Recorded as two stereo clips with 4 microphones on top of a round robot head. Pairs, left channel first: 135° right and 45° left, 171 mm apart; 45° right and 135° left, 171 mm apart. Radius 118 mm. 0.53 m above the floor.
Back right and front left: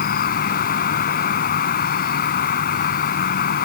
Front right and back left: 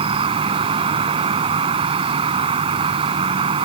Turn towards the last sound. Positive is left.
turn(degrees=-165)